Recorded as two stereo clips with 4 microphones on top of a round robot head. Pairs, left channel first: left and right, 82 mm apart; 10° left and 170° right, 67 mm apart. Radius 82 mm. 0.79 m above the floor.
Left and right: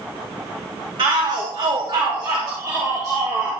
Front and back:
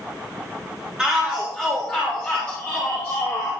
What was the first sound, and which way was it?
A shout, 95° right.